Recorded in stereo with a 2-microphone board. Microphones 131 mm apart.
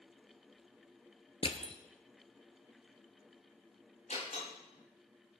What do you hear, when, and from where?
1.4 s crushing: 45° left (ahead or behind), 0.9 m
4.1 s a door slam: 80° left, 6.5 m